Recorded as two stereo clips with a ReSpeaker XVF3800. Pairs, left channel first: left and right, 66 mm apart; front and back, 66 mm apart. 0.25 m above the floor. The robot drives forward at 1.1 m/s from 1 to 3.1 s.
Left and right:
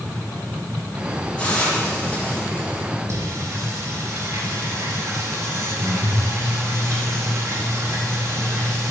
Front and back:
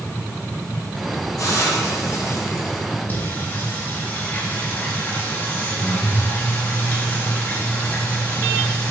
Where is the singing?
55° right, 3 m.